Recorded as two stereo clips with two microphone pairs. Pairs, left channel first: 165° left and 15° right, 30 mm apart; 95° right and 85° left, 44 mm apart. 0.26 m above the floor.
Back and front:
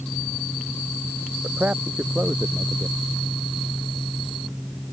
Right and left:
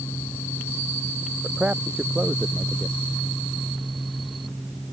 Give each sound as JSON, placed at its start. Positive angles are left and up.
{"t": 1.4, "sound": "a man speaking", "azimuth_deg": 20}